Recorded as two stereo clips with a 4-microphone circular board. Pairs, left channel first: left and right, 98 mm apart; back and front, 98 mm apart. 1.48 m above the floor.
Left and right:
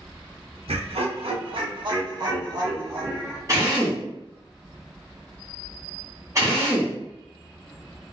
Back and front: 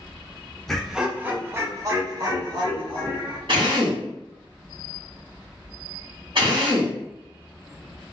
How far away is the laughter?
About 0.7 m.